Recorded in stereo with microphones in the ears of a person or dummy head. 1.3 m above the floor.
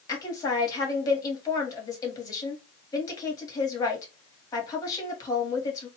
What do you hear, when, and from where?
0.1 s a woman speaking: 20° left (ahead or behind), 1.3 m